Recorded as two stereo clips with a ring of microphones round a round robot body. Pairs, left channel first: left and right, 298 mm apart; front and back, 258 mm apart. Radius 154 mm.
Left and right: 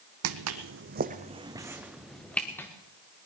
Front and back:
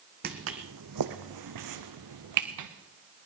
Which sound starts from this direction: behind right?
Footsteps, at 0.2 s.